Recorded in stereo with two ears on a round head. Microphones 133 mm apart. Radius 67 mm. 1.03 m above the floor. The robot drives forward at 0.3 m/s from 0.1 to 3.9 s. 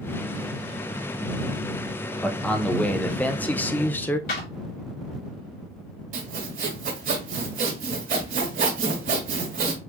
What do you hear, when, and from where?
2.2 s a man speaking: 5° left (ahead or behind), 0.8 m; by 4.2 s 10° left (ahead or behind), 0.5 m
4.3 s a clap: 65° left (ahead or behind), 2.5 m
6.1 s sawing: 60° right (ahead or behind), 1.9 m